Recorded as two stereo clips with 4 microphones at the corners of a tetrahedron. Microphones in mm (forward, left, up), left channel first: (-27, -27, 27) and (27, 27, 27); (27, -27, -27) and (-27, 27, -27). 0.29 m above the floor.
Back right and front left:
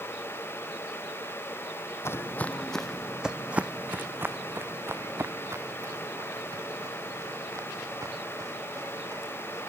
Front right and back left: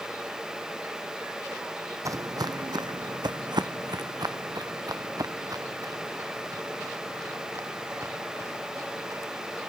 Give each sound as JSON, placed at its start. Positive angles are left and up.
{"t": 2.0, "sound": "footsteps", "azimuth_deg": 175, "distance_m": 0.6}